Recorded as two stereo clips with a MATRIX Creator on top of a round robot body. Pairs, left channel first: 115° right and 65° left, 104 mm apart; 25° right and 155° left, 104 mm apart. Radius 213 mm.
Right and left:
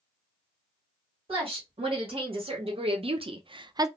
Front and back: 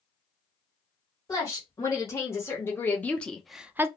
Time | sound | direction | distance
1.3 | a woman speaking | 35° left | 1.8 m